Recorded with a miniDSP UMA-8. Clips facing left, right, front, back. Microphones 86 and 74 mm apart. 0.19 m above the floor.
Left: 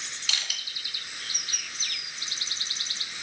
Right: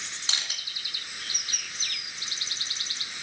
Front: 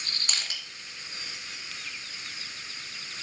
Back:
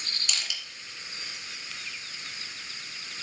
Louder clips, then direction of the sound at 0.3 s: Even, even; 35° right.